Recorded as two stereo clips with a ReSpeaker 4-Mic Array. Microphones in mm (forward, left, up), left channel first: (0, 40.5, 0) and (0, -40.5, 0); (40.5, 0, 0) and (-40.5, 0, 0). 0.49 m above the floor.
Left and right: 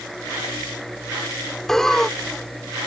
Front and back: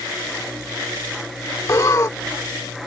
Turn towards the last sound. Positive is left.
turn(degrees=10)